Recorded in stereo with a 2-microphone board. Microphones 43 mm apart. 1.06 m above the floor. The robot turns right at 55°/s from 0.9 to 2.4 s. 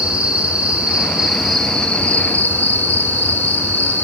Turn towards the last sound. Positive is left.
turn(degrees=55)